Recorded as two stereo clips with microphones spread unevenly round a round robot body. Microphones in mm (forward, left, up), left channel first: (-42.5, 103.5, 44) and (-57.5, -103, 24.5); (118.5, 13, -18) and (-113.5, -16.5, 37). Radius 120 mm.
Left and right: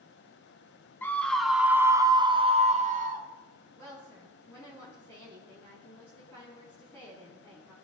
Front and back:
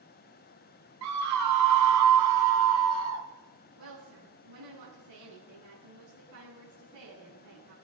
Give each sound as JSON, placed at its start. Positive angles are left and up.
{"t": 1.0, "sound": "a scream", "azimuth_deg": 170, "distance_m": 1.3}
{"t": 3.8, "sound": "a woman speaking", "azimuth_deg": 165, "distance_m": 6.0}